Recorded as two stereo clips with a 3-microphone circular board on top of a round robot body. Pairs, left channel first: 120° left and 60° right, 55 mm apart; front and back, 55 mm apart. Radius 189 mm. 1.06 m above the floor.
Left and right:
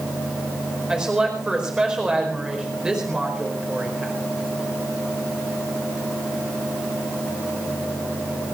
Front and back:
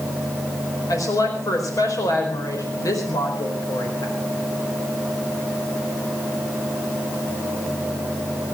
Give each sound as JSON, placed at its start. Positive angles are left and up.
{"t": 0.9, "sound": "a woman speaking", "azimuth_deg": 15, "distance_m": 4.5}